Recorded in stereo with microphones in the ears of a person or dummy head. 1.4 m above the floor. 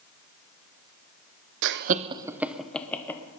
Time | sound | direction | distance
1.6 | laughter | 70° right (ahead or behind) | 0.6 m